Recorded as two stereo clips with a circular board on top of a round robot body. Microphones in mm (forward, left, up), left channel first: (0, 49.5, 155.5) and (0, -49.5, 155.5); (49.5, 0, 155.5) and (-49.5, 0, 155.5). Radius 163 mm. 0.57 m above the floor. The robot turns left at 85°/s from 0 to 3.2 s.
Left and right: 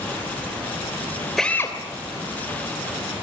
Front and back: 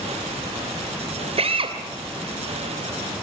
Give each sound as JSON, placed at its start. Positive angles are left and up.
{"t": 1.4, "sound": "a drill", "azimuth_deg": 180, "distance_m": 3.0}